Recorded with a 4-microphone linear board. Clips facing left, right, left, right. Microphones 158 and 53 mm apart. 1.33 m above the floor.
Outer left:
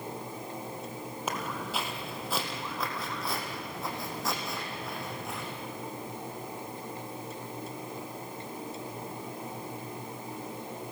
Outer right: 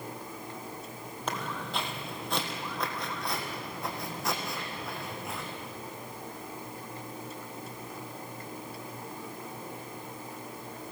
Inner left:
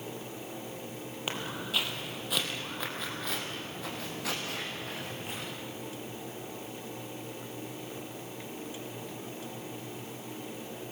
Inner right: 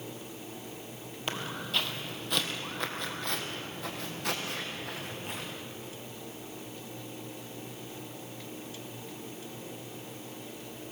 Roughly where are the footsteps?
Centre.